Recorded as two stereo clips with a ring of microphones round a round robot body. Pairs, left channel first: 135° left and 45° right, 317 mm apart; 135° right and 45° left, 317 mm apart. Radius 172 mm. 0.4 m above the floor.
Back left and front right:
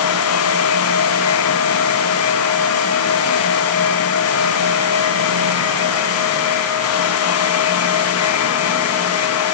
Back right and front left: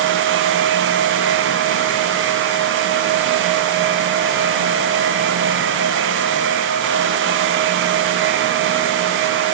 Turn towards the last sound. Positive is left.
No sound to turn to.